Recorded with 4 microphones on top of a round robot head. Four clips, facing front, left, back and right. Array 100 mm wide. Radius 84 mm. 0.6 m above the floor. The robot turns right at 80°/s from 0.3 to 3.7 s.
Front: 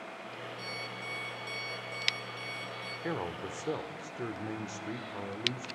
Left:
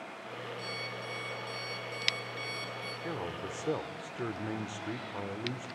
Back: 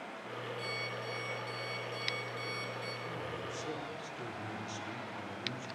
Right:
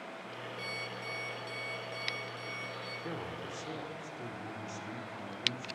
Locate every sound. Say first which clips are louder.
0.6 s an alarm clock: left 1 dB, back 1 dB; 70° right, 6 m; by 2.9 s 120° left, 6 m
3.0 s a man speaking: left 4 dB, front 5 dB; 5° left, 1.7 m; by 5.7 s 55° left, 1.7 m